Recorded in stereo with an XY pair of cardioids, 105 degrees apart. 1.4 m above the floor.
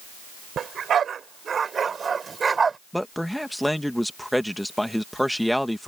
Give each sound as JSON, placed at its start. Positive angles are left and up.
{"t": 0.6, "sound": "a dog barking", "azimuth_deg": -55}
{"t": 2.9, "sound": "a man speaking", "azimuth_deg": 0}